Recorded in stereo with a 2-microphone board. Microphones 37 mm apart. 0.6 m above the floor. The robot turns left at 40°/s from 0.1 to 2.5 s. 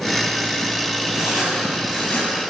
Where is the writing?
165° right, 8 m; by 2.4 s 140° left, 8 m.